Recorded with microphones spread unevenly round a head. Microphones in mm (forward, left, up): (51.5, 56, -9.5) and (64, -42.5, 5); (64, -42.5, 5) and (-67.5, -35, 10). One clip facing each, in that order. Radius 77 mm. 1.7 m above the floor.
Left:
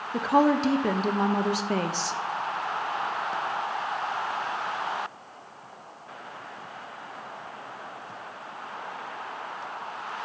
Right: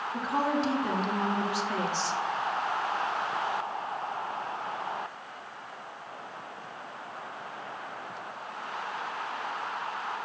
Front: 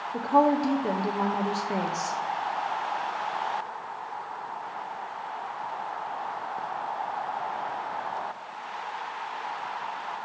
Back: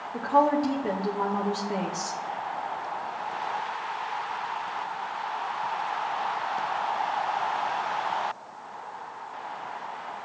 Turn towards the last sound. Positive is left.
turn(degrees=75)